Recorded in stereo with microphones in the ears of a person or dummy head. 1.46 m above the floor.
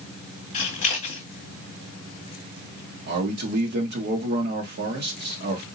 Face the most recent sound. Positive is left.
turn(degrees=-55)  # may be behind; listen again after turning